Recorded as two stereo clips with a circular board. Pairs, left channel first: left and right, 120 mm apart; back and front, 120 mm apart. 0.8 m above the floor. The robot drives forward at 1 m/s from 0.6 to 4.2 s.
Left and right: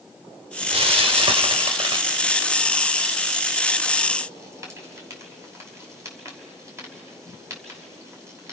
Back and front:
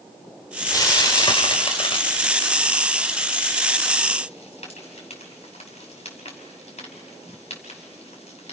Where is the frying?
120° right, 2.5 m; by 8.5 s 155° right, 5 m.